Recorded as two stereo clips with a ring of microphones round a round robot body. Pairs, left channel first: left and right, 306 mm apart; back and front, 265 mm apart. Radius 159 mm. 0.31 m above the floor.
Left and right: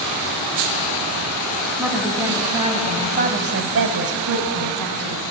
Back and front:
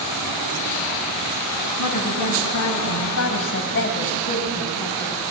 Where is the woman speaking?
175° right, 3.5 m; by 5.2 s 95° right, 3 m.